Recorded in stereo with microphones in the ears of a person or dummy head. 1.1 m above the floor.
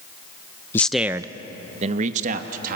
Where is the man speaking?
15° left (ahead or behind), 0.6 m; by 2.8 s 45° right (ahead or behind), 1.7 m.